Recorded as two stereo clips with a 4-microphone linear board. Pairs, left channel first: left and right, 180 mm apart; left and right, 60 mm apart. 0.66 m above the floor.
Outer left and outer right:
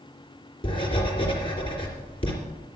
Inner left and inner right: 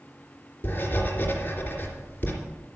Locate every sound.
0.6 s writing: 30° left (ahead or behind), 3 m